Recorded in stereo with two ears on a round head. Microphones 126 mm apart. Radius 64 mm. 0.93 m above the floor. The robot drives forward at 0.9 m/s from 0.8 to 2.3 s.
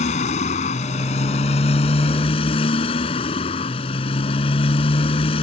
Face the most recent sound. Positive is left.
turn(degrees=45)  # may be behind; listen again after turning